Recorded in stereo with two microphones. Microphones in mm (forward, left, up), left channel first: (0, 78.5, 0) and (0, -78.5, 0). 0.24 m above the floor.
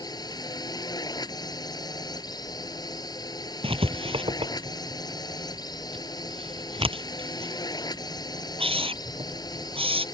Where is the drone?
25° left (ahead or behind).